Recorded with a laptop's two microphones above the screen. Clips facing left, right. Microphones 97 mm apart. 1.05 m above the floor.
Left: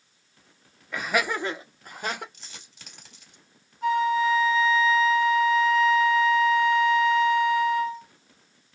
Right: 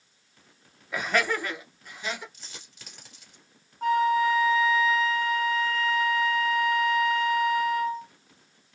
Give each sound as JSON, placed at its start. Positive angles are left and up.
{"t": 0.9, "sound": "laughter", "side_deg": -5, "distance_m": 0.7}
{"t": 2.3, "sound": "a dropped coin", "side_deg": -5, "distance_m": 1.8}
{"t": 3.8, "sound": "a flute", "side_deg": -50, "distance_m": 0.7}